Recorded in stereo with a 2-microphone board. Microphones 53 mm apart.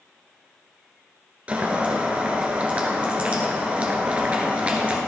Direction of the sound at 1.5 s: 25° right (ahead or behind).